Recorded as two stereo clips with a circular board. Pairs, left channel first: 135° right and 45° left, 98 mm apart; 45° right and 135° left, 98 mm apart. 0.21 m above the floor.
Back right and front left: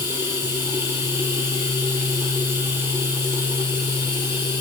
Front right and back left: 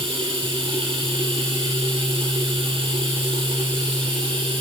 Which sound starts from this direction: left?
Running water, at 0.0 s.